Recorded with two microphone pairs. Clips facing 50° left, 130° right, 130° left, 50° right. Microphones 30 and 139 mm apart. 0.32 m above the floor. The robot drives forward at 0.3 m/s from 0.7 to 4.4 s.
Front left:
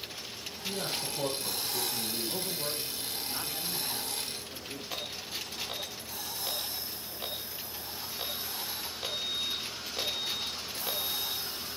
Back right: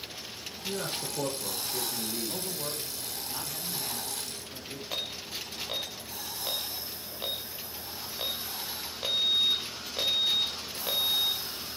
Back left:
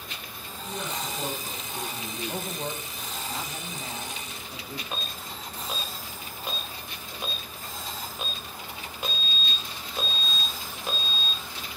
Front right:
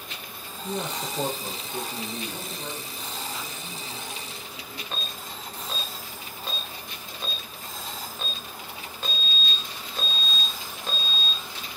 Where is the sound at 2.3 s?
150° left, 2.5 m; by 4.8 s 155° left, 3 m.